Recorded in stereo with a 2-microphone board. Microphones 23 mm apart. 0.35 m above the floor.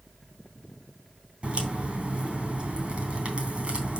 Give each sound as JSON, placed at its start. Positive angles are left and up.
{"t": 1.4, "sound": "a crack", "side_deg": -65, "distance_m": 3.0}